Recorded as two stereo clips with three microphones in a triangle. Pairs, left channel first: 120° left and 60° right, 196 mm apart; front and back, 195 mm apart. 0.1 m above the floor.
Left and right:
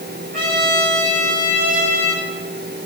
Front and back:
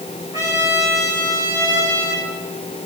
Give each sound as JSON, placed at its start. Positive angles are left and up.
{"t": 0.3, "sound": "a trumpet", "azimuth_deg": -105, "distance_m": 9.0}